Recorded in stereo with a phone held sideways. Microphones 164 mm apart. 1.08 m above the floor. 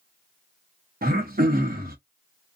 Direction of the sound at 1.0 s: 65° right (ahead or behind).